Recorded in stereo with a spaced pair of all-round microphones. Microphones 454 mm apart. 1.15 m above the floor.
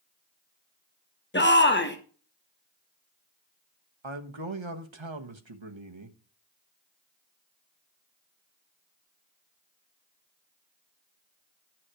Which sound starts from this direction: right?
A man speaking, at 4.0 s.